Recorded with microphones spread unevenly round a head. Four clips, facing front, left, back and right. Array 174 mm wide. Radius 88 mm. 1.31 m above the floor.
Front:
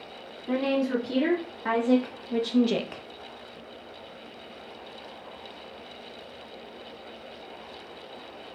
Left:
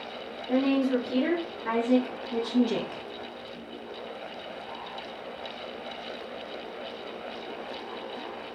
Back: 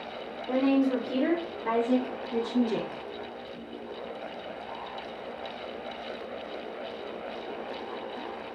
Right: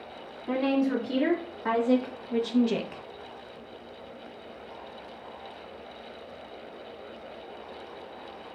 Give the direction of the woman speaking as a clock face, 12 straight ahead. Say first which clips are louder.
Left 1 dB, back 1 dB; 2 o'clock.